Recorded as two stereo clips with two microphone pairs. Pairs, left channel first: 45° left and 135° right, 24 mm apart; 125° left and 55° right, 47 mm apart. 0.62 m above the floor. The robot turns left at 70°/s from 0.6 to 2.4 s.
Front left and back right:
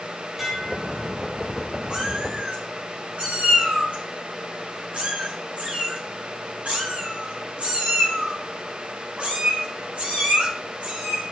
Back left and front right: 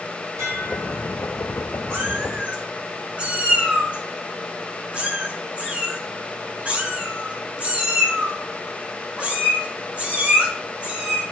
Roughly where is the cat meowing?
Right.